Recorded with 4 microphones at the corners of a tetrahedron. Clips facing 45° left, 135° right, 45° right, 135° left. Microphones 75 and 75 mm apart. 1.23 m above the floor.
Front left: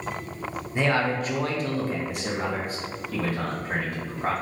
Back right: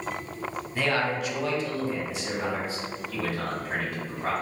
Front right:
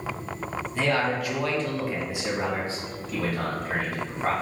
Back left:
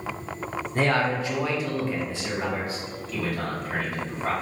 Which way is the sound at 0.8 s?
110° left.